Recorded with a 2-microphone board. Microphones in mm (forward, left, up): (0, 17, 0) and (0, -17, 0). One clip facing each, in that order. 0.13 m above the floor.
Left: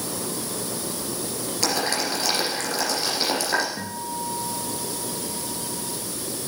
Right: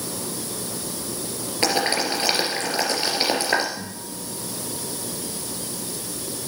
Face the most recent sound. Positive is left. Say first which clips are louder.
# left 5 dB
turn(degrees=25)  # may be behind; listen again after turning